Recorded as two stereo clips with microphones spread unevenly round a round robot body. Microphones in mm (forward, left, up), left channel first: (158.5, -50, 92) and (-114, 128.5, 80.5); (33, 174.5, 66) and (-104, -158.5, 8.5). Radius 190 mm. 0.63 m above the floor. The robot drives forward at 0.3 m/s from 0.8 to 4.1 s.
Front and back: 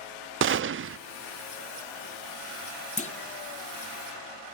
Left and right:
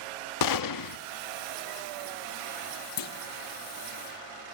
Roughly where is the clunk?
Ahead left.